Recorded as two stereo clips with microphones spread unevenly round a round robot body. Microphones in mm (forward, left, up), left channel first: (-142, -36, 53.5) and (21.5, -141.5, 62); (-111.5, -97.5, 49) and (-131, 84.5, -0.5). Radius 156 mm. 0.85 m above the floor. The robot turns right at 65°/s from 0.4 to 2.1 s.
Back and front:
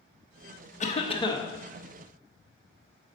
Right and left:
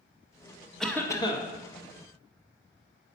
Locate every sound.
0.8 s a cough: 170° left, 1.2 m; by 1.5 s 145° right, 1.2 m